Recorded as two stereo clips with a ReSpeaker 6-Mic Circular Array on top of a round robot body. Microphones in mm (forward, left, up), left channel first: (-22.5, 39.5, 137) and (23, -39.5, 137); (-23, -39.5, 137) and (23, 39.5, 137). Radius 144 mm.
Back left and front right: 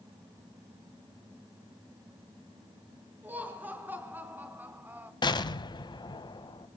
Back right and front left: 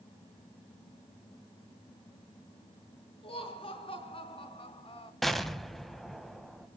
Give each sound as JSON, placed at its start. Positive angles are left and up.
{"t": 3.2, "sound": "laughter", "azimuth_deg": -130, "distance_m": 5.5}
{"t": 5.2, "sound": "an explosion", "azimuth_deg": 155, "distance_m": 2.5}